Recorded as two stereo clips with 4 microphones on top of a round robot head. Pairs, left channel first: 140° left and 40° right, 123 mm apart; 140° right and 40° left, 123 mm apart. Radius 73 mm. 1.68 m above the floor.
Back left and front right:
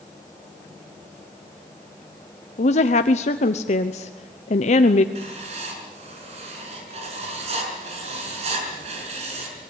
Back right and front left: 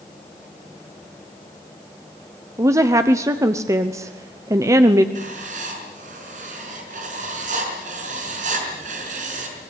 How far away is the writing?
About 5.5 m.